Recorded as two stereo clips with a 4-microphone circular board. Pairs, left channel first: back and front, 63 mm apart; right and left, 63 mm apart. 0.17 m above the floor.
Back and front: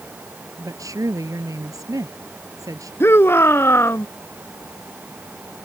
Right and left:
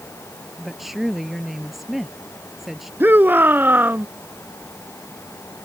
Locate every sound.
0.6 s a woman speaking: 5° left
3.0 s a shout: 140° left